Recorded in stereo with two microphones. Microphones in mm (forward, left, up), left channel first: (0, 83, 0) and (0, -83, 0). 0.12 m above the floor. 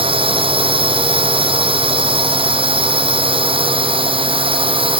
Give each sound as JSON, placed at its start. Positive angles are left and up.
{"t": 0.0, "sound": "a drone", "side_deg": -35}